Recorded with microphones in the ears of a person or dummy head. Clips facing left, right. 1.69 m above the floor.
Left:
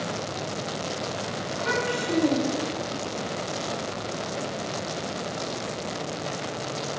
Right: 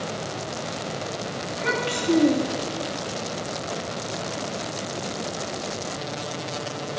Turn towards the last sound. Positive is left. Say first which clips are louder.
# even
turn(degrees=-65)  # may be behind; listen again after turning